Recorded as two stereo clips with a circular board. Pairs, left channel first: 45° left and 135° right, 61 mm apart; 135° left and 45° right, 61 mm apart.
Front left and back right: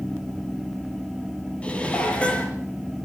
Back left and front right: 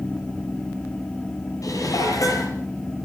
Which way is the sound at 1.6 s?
115° left.